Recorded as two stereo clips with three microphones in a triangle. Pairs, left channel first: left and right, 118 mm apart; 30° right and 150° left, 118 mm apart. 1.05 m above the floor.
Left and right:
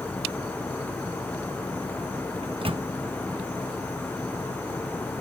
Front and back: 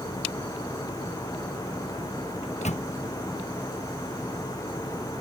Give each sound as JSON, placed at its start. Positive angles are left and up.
{"t": 2.4, "sound": "a microwave", "azimuth_deg": -50}